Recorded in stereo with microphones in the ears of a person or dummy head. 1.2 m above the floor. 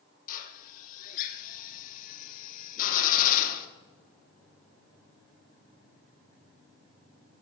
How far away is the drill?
About 1.2 m.